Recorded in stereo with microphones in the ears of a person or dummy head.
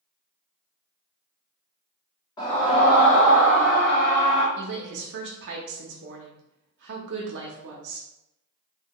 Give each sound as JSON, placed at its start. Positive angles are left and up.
{"t": 2.4, "sound": "a scream", "side_deg": 25, "distance_m": 0.6}
{"t": 4.6, "sound": "a woman speaking", "side_deg": -65, "distance_m": 0.5}